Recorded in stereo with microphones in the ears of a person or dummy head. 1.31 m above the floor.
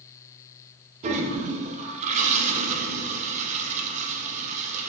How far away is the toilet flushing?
About 0.6 m.